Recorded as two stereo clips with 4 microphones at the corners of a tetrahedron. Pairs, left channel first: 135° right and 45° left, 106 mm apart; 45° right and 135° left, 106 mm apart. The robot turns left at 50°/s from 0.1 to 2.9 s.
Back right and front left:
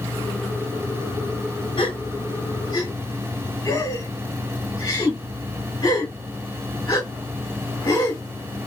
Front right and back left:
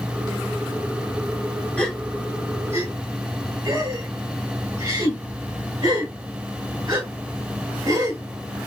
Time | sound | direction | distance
1.8 | a gasp | 120° right | 2 m